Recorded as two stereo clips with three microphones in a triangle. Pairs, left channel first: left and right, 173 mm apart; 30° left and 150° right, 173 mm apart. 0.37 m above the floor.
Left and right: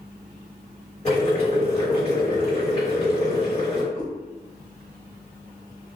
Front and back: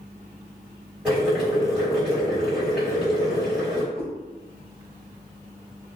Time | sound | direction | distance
1.1 | boiling | 130° left | 2.0 m
3.9 | a cat meowing | 45° left | 1.1 m